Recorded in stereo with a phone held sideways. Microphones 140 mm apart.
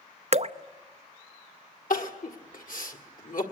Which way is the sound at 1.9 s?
75° left (ahead or behind).